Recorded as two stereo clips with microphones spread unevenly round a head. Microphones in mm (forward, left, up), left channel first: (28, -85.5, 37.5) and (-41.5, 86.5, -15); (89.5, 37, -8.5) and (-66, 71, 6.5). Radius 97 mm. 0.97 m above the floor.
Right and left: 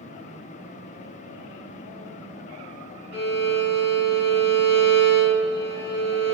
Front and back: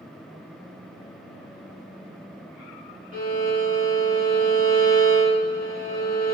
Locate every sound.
3.1 s a violin: 45° left, 1.6 m